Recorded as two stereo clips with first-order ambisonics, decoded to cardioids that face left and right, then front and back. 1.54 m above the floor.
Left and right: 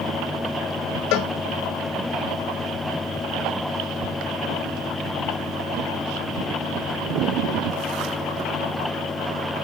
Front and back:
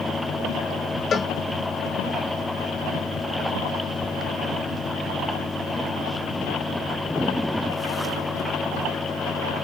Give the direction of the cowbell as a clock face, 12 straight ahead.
10 o'clock.